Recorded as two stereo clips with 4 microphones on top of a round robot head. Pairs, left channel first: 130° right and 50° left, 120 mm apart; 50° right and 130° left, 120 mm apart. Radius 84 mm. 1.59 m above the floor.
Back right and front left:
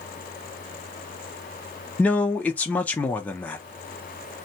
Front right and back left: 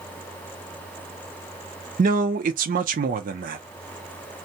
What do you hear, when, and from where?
2.0 s a man speaking: 150° left, 0.6 m